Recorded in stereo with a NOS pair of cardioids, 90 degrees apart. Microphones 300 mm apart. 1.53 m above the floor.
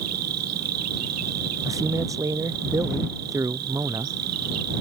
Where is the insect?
55° right.